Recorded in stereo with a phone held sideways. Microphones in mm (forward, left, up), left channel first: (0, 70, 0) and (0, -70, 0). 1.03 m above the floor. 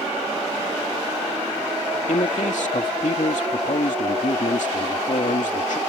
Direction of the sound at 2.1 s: 70° left (ahead or behind).